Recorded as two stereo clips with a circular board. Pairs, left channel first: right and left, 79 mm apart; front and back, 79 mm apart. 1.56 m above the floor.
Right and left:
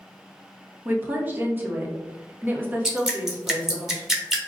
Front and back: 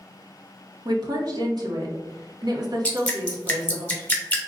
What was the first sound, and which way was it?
A woman speaking, 155° left.